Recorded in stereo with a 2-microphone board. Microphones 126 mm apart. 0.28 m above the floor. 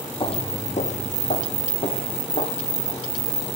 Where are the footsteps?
40° left (ahead or behind), 0.5 m; by 3.5 s 70° left (ahead or behind), 3 m.